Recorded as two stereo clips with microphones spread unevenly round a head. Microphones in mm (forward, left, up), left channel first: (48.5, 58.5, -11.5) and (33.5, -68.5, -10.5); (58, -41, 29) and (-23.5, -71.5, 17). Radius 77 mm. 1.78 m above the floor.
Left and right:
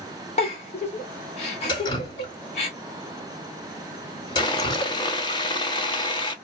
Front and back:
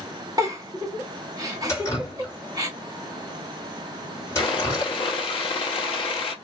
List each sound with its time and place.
0.4 s a giggle: 135° left, 1.0 m
1.7 s dripping: 50° left, 1.8 m
4.4 s sawing: 30° left, 1.2 m